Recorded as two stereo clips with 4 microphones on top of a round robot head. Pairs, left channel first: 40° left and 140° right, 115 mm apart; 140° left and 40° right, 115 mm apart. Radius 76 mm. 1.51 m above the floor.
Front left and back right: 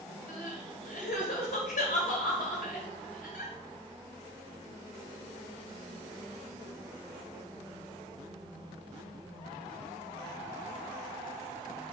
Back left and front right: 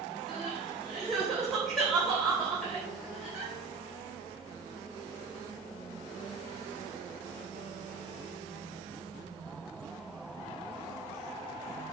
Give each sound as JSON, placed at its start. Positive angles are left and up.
{"t": 0.3, "sound": "crying", "azimuth_deg": 50, "distance_m": 2.5}